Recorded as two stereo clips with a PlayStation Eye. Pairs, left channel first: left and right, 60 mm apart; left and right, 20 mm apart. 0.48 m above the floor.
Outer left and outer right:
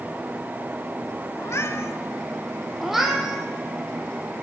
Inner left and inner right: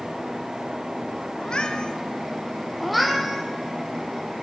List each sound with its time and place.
1.4 s a cat meowing: 50° left (ahead or behind), 1.1 m
2.8 s a cat meowing: 5° right (ahead or behind), 1.7 m